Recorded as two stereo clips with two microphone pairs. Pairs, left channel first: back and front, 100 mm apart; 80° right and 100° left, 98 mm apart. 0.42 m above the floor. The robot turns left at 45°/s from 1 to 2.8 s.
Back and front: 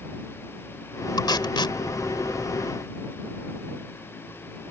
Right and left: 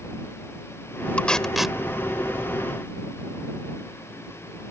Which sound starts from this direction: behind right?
Tape being pulled, at 1.2 s.